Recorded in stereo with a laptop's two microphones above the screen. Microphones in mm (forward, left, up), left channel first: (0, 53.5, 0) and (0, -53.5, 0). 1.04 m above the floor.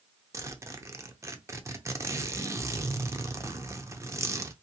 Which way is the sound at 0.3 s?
25° right (ahead or behind).